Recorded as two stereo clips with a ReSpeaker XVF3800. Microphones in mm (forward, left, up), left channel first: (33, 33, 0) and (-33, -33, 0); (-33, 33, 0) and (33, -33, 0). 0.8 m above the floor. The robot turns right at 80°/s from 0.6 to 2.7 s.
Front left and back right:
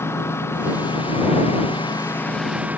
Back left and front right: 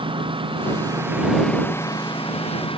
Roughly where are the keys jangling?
No keys jangling in this recording.